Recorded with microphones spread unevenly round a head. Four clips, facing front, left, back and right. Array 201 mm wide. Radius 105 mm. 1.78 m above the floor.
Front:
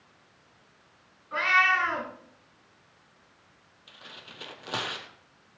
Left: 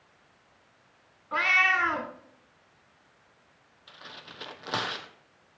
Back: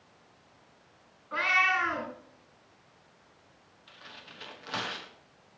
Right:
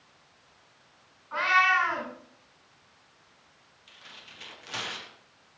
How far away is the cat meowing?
About 3 m.